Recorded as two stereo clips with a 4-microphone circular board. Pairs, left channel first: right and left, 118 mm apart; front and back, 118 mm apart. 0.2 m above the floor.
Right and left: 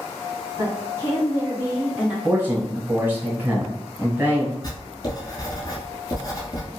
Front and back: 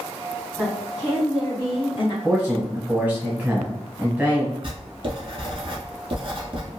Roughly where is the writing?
Behind right.